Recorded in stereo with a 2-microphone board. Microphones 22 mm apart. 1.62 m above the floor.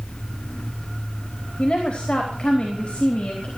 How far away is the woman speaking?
About 4 m.